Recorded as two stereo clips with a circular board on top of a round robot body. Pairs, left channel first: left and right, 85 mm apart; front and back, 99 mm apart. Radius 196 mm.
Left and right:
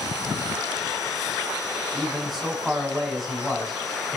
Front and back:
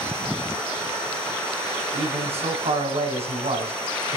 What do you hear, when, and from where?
1.9 s a man speaking: straight behind, 5.5 m